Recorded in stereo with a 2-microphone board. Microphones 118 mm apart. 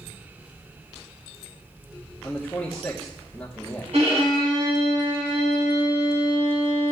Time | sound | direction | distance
2.2 | a man speaking | 5° left (ahead or behind) | 1.2 m
3.9 | a violin | 70° right (ahead or behind) | 4 m